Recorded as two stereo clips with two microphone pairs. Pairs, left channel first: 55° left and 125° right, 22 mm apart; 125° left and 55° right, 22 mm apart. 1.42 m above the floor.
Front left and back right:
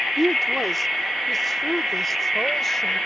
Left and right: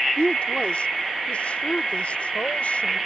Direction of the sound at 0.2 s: 150° left.